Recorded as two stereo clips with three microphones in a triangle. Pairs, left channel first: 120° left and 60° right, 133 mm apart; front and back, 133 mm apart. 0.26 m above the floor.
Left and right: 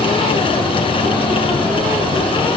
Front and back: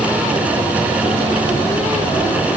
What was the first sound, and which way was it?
Only background noise.